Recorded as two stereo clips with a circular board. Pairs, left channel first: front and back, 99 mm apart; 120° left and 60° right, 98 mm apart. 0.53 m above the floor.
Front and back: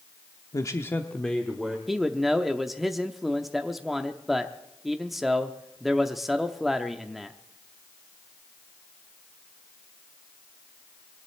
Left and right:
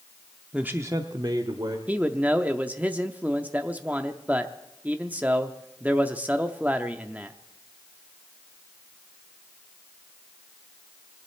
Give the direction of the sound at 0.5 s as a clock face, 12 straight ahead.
12 o'clock.